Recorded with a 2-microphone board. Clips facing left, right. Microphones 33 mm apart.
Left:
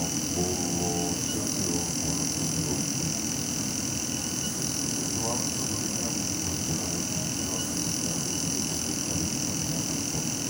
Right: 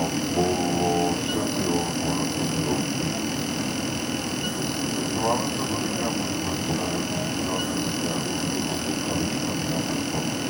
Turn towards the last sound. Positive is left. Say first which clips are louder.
# right 6 dB
turn(degrees=-45)  # may be behind; listen again after turning